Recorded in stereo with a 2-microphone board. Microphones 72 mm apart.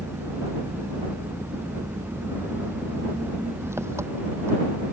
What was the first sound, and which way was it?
An engine running, 35° right (ahead or behind).